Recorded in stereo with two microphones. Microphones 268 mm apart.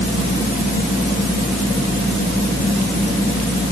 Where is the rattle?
I don't hear a rattle.